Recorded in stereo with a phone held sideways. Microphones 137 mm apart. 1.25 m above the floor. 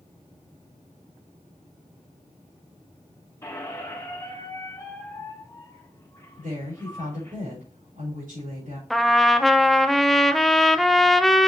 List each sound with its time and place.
3.4 s a squeak: 20° left (ahead or behind), 1.8 m
6.4 s a woman speaking: 70° right (ahead or behind), 4.5 m
8.9 s a trumpet: centre (ahead or behind), 0.5 m